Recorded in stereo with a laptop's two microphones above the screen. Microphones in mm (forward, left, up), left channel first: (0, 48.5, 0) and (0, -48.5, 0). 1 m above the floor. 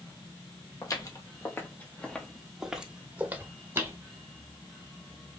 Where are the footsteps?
40° left (ahead or behind), 1.3 m; by 4.0 s 30° right (ahead or behind), 1.5 m.